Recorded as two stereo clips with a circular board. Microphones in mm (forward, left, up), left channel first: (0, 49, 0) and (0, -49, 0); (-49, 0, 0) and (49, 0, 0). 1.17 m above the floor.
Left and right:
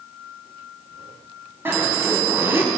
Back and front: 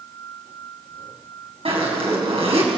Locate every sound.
1.6 s a zipper: 20° right, 5.5 m